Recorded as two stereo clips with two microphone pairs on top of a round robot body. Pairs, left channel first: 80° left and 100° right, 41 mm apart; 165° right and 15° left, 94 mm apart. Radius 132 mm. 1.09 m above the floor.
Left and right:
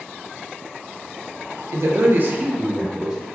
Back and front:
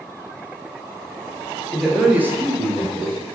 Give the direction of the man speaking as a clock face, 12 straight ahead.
3 o'clock.